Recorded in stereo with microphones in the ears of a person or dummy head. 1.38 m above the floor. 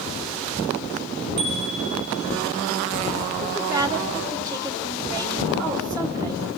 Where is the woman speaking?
15° right (ahead or behind), 2.5 m.